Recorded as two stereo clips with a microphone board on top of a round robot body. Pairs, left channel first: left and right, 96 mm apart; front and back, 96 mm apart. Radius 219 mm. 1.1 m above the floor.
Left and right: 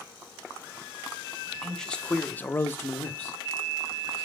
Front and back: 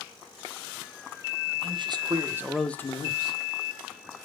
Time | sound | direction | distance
1.6 | a man speaking | 175° left | 1.0 m